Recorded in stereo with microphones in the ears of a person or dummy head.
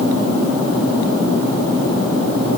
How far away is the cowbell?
I don't hear a cowbell.